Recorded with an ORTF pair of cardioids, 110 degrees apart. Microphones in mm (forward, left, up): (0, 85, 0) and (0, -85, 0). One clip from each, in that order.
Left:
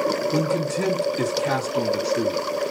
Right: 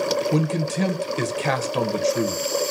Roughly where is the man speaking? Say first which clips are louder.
Left 2 dB; ahead right.